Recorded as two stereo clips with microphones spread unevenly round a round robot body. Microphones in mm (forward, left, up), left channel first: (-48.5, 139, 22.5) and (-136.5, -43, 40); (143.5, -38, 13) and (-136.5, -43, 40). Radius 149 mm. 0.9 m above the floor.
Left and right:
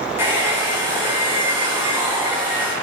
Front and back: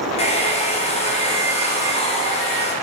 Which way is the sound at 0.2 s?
35° right.